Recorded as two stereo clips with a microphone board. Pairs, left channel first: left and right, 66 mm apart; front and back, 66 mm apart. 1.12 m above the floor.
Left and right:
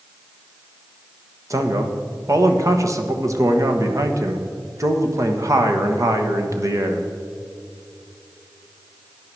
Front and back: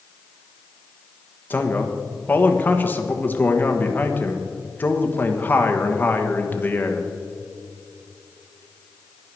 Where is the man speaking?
60° right, 1.3 m.